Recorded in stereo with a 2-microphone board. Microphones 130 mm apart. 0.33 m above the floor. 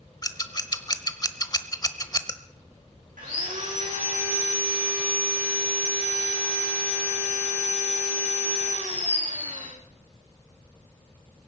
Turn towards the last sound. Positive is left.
turn(degrees=-85)